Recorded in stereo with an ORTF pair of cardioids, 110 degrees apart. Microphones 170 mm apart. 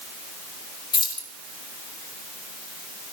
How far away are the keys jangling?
About 4 m.